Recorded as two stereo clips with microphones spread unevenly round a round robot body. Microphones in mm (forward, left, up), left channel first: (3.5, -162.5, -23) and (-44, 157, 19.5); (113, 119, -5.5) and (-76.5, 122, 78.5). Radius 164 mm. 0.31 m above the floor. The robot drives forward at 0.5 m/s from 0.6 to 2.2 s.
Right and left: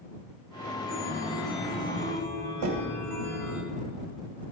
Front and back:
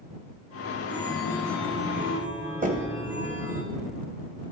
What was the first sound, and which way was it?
A chime, 45° right.